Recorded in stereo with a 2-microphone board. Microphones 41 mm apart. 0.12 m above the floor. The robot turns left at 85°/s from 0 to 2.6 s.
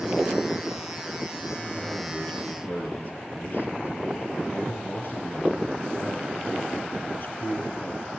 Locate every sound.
1.6 s a man speaking: 150° right, 3.5 m; by 8.1 s 120° left, 3.5 m